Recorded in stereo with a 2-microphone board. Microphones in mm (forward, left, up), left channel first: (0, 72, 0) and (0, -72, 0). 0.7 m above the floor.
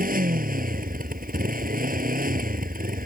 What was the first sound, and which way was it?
A motorcycle, 80° right.